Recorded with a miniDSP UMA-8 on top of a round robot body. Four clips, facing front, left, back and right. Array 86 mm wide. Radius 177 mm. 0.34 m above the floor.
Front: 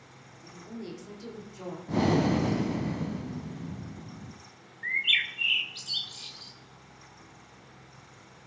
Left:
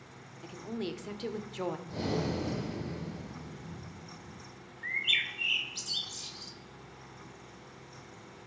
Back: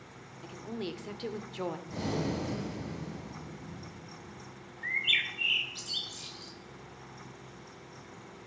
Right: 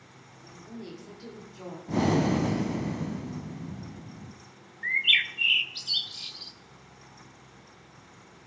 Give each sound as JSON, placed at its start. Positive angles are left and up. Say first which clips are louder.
{"t": 0.4, "sound": "a woman speaking", "louder": "left 5 dB, back 3 dB", "azimuth_deg": 130, "distance_m": 1.8}
{"t": 1.9, "sound": "breathing", "louder": "right 13 dB, front 13 dB", "azimuth_deg": -55, "distance_m": 1.0}
{"t": 4.8, "sound": "a bird", "louder": "right 6 dB, front 3 dB", "azimuth_deg": -75, "distance_m": 1.3}